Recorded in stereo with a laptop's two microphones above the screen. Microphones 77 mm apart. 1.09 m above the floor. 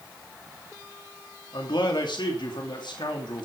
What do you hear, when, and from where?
1.5 s a man speaking: 75° left (ahead or behind), 3 m